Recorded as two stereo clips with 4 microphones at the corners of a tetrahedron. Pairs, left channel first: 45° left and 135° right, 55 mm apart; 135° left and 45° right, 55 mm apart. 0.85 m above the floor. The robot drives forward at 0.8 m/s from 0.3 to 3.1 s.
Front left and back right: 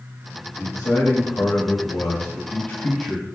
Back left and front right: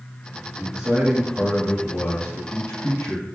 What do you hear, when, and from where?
0.6 s a man speaking: 30° left, 1.6 m; by 3.2 s 130° left, 1.1 m